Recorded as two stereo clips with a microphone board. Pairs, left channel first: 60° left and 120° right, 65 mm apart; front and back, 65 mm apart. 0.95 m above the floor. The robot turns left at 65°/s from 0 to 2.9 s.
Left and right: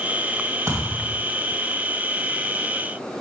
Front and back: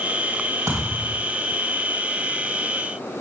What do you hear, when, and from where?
0.7 s a thud: 160° right, 3 m; by 1.2 s 165° left, 3 m